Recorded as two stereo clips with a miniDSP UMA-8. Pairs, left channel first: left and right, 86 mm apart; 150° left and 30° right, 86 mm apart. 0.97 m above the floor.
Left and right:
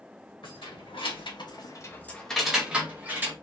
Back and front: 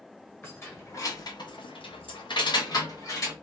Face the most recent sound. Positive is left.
turn(degrees=-155)